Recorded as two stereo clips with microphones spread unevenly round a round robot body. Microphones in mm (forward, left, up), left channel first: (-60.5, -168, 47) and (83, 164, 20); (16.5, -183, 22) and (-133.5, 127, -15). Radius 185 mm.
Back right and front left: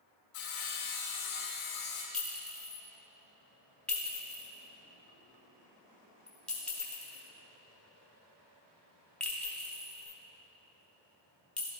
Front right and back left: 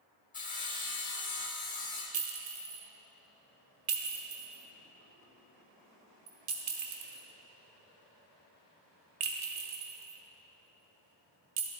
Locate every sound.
0.3 s sawing: 125° right, 1.3 m
2.1 s a clink: 160° left, 1.0 m